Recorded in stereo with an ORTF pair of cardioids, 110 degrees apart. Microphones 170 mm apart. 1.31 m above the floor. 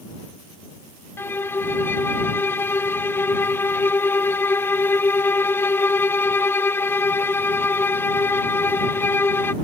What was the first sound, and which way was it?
A violin, 15° left.